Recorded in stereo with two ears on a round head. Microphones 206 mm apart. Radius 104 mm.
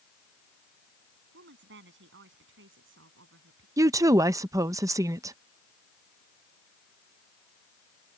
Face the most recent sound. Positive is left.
turn(degrees=-15)  # may be behind; listen again after turning